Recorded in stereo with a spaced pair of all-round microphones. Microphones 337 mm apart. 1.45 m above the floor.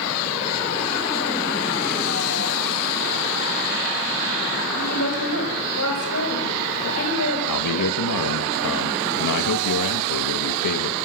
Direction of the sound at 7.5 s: 65° left (ahead or behind).